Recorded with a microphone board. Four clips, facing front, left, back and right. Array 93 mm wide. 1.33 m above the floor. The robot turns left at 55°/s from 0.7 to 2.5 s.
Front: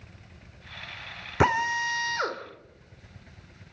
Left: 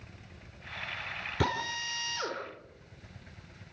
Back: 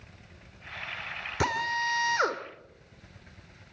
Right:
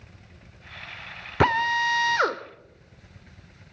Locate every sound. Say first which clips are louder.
1.4 s a drill: right 12 dB, front 5 dB; 55° right, 1.7 m; by 2.4 s 115° right, 1.7 m